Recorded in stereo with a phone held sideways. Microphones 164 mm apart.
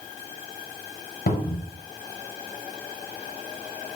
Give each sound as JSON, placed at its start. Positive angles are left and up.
{"t": 1.3, "sound": "a cupboard door", "side_deg": 60, "distance_m": 0.7}